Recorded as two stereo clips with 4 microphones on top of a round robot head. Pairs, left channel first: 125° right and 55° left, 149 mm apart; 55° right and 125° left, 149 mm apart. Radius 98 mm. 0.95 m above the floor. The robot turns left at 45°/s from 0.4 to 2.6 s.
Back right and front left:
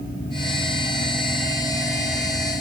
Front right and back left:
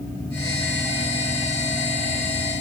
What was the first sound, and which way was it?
Only background noise.